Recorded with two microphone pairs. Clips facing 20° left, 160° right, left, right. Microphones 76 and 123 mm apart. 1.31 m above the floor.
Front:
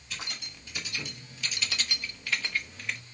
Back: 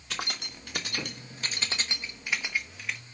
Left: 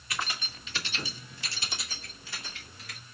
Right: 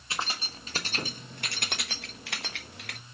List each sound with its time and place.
0.1 s keys jangling: 150° right, 1.4 m; by 3.0 s 70° right, 1.3 m